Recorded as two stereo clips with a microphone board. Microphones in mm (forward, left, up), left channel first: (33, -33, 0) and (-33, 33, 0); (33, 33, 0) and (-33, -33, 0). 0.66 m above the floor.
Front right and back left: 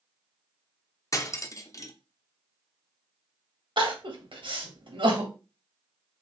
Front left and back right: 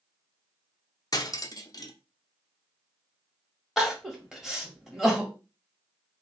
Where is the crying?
140° left, 1.2 m.